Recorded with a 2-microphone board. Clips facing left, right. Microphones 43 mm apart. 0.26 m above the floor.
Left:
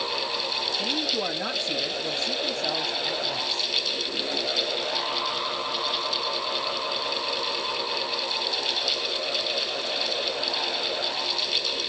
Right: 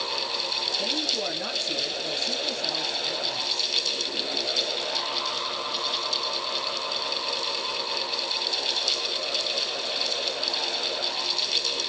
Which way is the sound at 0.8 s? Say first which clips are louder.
Left 2 dB; 20° left (ahead or behind).